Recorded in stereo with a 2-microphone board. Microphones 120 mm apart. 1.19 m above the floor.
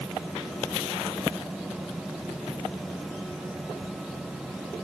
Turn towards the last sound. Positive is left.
No sound to turn to.